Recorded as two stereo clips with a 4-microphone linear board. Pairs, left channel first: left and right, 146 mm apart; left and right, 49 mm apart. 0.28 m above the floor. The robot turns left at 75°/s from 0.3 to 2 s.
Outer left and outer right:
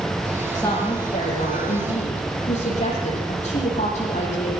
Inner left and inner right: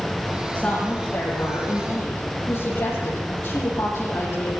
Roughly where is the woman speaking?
Behind.